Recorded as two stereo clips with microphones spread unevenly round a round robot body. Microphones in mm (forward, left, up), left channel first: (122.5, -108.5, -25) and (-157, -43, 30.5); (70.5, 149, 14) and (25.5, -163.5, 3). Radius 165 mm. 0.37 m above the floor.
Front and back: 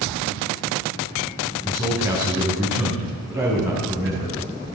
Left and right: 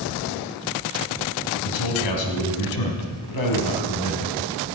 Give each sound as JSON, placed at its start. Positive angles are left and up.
{"t": 1.6, "sound": "a man speaking", "azimuth_deg": 85, "distance_m": 3.5}